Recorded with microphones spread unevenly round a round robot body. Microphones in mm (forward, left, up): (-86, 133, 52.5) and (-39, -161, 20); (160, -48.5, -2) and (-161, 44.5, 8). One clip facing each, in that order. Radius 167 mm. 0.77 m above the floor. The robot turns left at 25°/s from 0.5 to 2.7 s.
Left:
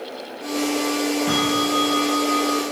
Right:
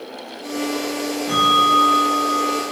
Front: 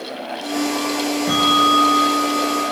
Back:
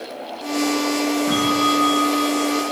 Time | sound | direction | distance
1.3 | a bell | 50° left | 5 m